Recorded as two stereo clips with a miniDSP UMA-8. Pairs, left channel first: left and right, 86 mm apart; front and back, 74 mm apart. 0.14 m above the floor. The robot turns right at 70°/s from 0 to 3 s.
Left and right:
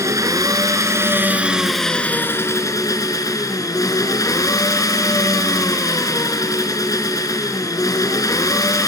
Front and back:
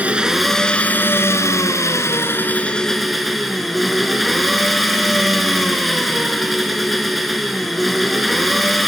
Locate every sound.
0.0 s an engine running: 120° right, 1.7 m; by 8.9 s 90° left, 1.7 m